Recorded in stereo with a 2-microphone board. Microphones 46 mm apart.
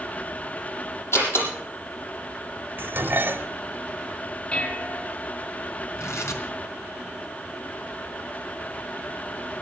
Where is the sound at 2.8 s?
45° right (ahead or behind), 1.3 m.